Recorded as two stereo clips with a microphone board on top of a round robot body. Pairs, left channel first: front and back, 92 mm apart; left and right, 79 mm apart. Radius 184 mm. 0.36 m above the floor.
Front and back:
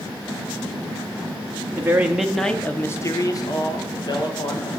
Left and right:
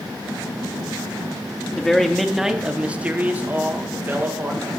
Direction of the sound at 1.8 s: 155° left.